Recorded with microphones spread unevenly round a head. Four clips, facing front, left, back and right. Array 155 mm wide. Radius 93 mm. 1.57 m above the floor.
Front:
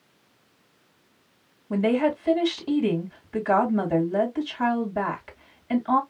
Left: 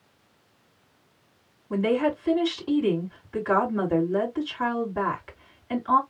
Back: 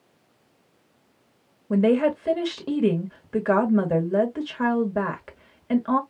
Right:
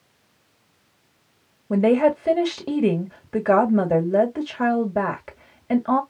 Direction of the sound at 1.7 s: 125° right.